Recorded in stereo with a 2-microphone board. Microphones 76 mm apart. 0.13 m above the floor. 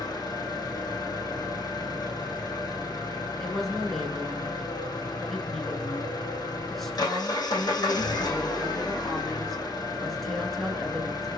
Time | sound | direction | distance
0.0 | an engine running | 60° left (ahead or behind) | 3.5 m
3.4 | a woman speaking | 5° left (ahead or behind) | 1.6 m